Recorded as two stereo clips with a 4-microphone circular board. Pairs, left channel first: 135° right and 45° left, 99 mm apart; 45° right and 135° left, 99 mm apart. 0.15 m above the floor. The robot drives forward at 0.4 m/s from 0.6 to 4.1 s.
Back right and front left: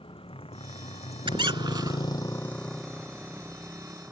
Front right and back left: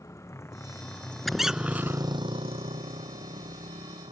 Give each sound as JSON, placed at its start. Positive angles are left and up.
{"t": 0.0, "sound": "a motorcycle", "azimuth_deg": -105}
{"t": 1.3, "sound": "a squeak", "azimuth_deg": 45}